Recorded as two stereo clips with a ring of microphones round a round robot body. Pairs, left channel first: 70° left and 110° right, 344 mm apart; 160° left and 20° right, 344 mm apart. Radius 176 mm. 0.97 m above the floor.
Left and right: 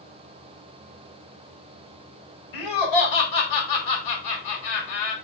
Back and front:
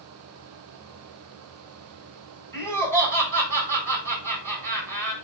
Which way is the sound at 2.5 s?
75° left.